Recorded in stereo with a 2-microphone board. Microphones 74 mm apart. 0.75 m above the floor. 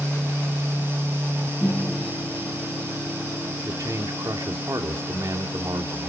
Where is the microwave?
30° right (ahead or behind), 5.5 m.